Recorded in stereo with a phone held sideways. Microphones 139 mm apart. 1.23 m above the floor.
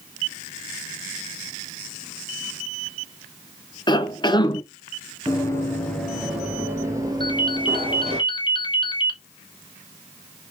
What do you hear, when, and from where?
3.9 s a cough: 30° left (ahead or behind), 0.6 m
5.3 s running footsteps: 25° left (ahead or behind), 1.3 m; by 8.2 s 45° right (ahead or behind), 1.8 m
7.2 s a ringtone: 35° left (ahead or behind), 0.8 m